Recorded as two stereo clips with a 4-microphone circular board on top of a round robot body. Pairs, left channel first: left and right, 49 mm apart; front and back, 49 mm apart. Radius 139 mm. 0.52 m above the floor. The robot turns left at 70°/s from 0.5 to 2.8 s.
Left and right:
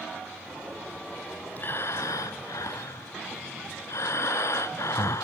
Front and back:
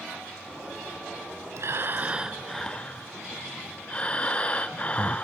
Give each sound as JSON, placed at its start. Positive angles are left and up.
{"t": 1.6, "sound": "breathing", "azimuth_deg": 150, "distance_m": 0.8}